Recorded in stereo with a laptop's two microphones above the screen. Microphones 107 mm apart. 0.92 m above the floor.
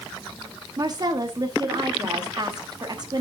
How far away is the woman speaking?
About 1.2 m.